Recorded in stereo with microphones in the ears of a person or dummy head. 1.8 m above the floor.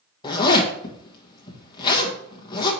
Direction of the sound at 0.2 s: 25° left (ahead or behind).